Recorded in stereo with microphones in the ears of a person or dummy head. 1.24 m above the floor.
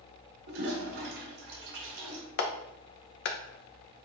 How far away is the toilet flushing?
About 1.6 m.